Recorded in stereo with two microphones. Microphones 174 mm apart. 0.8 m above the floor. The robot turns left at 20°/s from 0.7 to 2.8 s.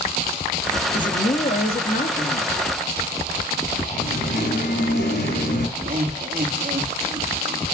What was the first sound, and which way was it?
A man speaking, 125° left.